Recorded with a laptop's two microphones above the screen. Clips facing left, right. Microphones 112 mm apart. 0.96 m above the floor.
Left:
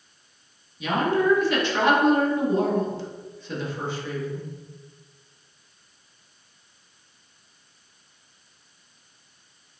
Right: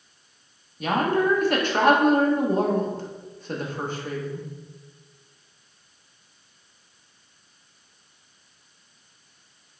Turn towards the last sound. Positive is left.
turn(degrees=-50)  # may be behind; listen again after turning